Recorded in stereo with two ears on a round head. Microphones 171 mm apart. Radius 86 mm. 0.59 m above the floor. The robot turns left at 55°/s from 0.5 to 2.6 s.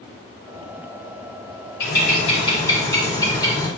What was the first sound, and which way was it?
A bird, 65° left.